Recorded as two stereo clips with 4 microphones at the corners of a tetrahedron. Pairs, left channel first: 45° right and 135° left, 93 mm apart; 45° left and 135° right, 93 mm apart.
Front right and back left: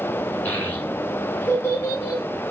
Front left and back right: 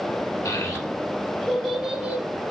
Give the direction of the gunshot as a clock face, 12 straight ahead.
No gunshot in this recording.